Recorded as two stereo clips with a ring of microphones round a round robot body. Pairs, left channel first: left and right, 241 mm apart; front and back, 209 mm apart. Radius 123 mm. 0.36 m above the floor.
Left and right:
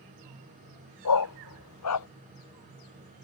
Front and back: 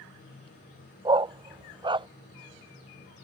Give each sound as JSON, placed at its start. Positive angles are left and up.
{"t": 1.1, "sound": "a dog barking", "azimuth_deg": 110}